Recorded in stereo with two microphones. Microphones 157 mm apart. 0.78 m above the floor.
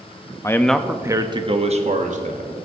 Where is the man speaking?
20° left (ahead or behind), 0.6 m; by 2.5 s 55° right (ahead or behind), 1.3 m.